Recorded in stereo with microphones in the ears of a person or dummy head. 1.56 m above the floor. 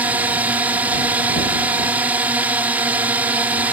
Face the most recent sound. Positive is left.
turn(degrees=-15)  # may be behind; listen again after turning